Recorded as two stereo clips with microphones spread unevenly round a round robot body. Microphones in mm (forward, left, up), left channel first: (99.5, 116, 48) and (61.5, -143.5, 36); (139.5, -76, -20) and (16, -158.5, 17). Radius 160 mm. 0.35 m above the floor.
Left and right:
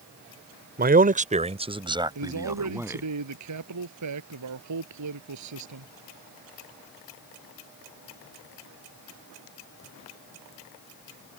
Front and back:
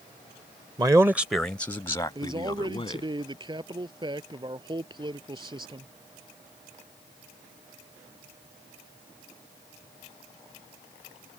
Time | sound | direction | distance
0.8 | a man speaking | 80° right | ?
2.1 | a man speaking | 90° right | ?